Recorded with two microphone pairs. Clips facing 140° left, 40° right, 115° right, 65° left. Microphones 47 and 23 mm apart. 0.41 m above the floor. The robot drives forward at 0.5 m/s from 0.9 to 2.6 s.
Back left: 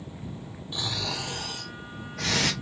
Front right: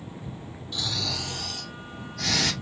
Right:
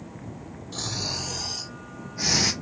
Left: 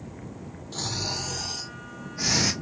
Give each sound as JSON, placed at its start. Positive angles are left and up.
{"t": 0.7, "sound": "snoring", "azimuth_deg": 165, "distance_m": 1.2}